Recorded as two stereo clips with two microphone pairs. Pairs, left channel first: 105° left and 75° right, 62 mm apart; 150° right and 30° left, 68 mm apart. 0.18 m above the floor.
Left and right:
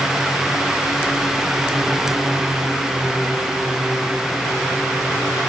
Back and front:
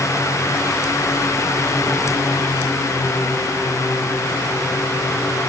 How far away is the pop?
I don't hear a pop.